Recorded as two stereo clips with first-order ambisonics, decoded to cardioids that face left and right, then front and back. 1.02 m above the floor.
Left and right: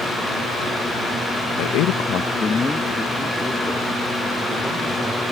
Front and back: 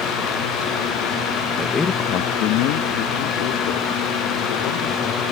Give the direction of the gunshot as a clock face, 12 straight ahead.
No gunshot in this recording.